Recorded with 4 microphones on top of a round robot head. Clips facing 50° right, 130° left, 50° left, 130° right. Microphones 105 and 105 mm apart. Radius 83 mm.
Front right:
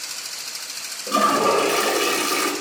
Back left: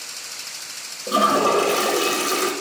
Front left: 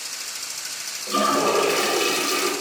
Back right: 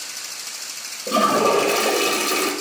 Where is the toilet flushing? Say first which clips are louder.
Back left 1 dB, back right 3 dB; 155° right, 1.2 m.